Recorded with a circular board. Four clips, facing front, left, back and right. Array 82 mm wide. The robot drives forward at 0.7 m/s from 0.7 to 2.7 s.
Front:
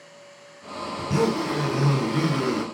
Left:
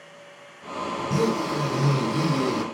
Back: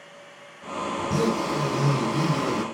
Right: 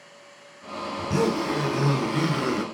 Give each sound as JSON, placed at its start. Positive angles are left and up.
{"t": 1.0, "sound": "a zipper", "azimuth_deg": -35, "distance_m": 1.9}